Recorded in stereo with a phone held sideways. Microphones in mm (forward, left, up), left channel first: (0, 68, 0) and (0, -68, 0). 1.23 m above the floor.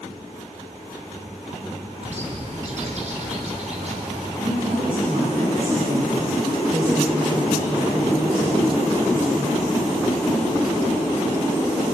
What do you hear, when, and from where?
2.0 s a bird: 60° right (ahead or behind), 3.5 m
4.4 s a woman speaking: 85° right, 8.5 m